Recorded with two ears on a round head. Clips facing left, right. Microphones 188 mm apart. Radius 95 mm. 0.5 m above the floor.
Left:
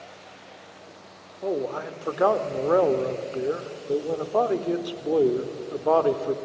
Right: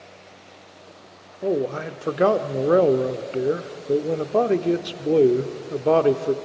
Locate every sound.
1.4 s a man speaking: 30° right (ahead or behind), 0.9 m